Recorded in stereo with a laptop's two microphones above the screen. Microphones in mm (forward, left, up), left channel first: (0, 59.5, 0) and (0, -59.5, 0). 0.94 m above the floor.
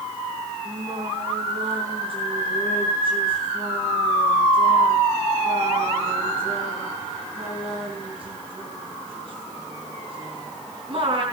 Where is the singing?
45° right (ahead or behind), 4 m.